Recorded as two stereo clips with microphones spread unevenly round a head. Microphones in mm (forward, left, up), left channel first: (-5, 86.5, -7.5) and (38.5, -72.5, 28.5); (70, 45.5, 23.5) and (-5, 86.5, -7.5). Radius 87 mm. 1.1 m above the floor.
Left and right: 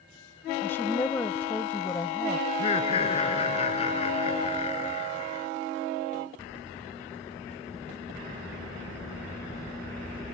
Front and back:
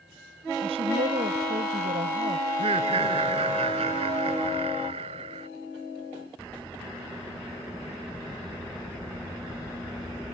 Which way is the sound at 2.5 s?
165° left.